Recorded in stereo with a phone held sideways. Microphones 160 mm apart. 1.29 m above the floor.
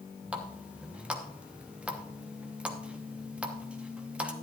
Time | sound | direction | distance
0.3 | a running tap | 5° right (ahead or behind) | 1.1 m